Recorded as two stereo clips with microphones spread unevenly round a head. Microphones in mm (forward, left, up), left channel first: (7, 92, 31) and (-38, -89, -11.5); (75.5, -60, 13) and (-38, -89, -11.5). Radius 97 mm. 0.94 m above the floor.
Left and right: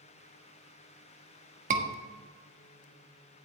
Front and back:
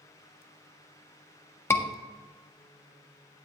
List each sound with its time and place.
1.7 s a scream: 60° right, 1.3 m